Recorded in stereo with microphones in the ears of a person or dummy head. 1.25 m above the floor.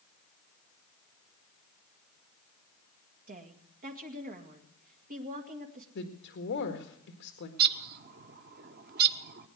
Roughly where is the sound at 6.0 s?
Left.